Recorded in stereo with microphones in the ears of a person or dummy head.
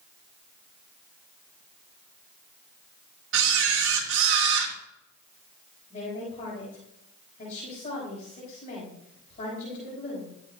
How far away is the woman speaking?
About 6 m.